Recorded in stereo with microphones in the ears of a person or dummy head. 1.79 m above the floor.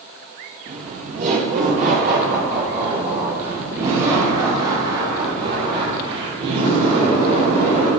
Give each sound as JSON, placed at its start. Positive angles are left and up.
{"t": 0.7, "sound": "laughter", "side_deg": -40, "distance_m": 1.0}